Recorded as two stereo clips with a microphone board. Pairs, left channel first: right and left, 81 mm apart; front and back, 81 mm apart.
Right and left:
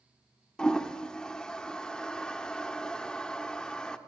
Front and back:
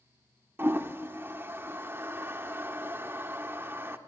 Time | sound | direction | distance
0.6 | a toilet flushing | 160° right | 1.0 m